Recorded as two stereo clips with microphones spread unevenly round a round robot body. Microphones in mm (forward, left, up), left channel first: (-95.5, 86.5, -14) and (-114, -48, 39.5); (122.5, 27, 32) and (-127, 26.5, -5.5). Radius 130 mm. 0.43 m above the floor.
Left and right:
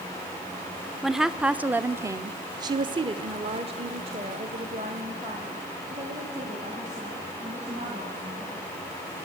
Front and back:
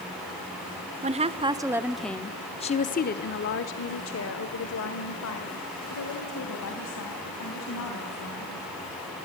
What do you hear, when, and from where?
1.0 s a woman speaking: 145° left, 0.9 m; by 8.7 s 30° right, 3.5 m